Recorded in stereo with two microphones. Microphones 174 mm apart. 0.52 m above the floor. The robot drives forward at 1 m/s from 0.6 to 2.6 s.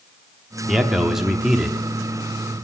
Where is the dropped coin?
I don't hear a dropped coin.